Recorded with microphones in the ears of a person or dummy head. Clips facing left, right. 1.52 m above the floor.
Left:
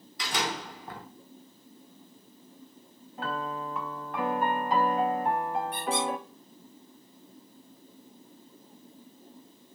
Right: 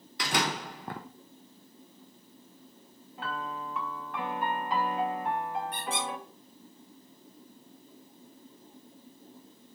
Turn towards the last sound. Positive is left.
turn(degrees=-55)  # may be behind; listen again after turning